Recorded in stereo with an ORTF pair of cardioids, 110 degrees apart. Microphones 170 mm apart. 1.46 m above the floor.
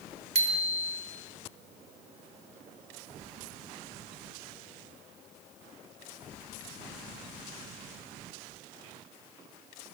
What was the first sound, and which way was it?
A bicycle bell, 40° right.